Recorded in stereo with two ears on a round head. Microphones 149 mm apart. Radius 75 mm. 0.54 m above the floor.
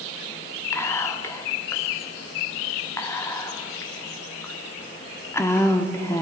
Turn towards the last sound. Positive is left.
turn(degrees=15)  # may be behind; listen again after turning